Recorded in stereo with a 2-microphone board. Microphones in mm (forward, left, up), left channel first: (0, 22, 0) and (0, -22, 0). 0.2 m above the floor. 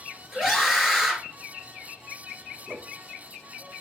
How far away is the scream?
About 3 m.